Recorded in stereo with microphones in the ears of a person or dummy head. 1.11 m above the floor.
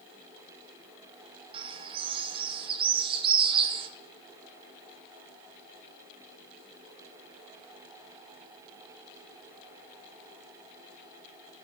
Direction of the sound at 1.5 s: 25° right (ahead or behind).